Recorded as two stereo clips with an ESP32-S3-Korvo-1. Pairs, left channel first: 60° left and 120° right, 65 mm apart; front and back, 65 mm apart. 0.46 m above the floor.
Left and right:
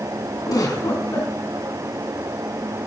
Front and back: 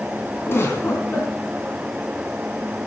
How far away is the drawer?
No drawer in this recording.